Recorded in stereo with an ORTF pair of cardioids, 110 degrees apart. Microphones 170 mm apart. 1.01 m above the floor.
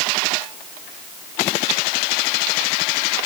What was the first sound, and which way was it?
Only background noise.